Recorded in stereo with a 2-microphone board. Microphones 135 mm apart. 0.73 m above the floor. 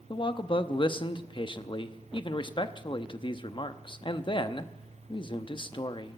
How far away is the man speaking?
About 0.8 m.